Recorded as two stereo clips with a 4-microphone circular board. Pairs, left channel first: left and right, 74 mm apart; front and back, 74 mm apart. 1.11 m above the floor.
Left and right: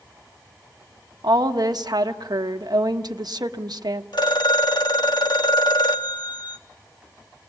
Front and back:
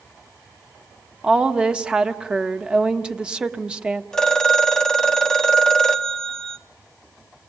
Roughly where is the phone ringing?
Left.